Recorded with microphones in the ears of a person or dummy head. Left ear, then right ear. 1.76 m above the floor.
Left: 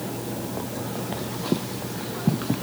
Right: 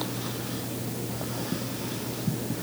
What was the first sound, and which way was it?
Only background noise.